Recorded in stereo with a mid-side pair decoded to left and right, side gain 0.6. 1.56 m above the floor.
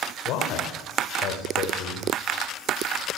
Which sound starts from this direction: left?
A man speaking, at 0.2 s.